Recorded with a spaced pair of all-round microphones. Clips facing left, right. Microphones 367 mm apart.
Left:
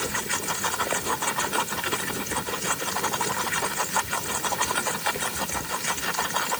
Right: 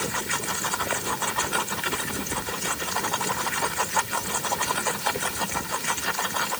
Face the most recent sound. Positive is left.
No sound to turn to.